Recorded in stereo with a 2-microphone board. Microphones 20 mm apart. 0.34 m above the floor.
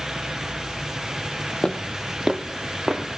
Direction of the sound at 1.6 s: 45° left (ahead or behind).